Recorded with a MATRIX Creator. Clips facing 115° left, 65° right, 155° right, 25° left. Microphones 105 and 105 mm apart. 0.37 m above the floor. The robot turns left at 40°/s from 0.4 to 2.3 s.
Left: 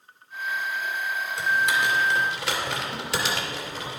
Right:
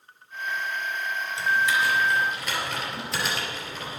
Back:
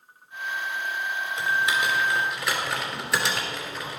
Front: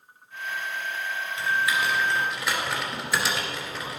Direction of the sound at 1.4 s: 150° left.